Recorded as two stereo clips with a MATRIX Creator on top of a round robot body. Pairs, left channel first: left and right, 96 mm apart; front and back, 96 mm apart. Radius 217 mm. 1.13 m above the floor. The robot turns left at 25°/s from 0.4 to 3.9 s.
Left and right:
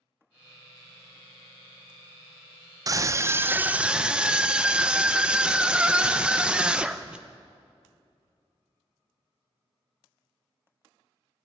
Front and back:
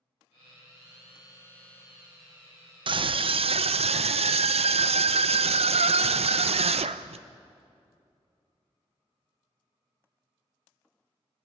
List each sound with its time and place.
2.9 s a scream: 145° right, 0.9 m; by 7.2 s 170° right, 0.9 m